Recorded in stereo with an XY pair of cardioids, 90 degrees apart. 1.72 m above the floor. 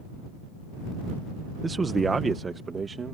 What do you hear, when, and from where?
1.6 s a man speaking: 30° right; by 3.1 s 40° right